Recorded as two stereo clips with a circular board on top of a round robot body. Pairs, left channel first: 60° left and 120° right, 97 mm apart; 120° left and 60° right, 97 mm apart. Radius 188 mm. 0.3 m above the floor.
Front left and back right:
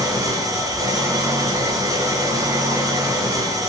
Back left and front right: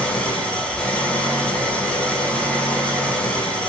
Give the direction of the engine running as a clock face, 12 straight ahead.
5 o'clock.